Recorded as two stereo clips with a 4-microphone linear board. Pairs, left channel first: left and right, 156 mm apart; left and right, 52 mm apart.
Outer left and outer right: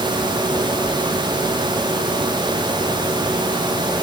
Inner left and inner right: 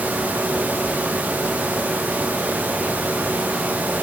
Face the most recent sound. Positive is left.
No sound to turn to.